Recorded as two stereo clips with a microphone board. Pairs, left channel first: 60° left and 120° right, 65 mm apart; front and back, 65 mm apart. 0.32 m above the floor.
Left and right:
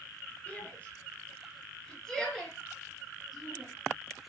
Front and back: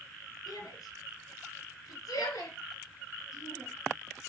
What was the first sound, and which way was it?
A shout, 5° right.